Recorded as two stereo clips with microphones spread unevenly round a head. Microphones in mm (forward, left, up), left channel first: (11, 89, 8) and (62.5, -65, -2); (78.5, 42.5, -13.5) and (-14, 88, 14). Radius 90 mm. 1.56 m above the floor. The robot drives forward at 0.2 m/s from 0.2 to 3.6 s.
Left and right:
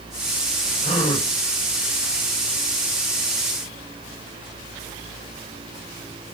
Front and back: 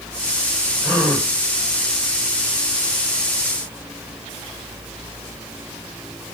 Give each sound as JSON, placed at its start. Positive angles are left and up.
{"t": 0.8, "sound": "a gasp", "azimuth_deg": 55, "distance_m": 6.0}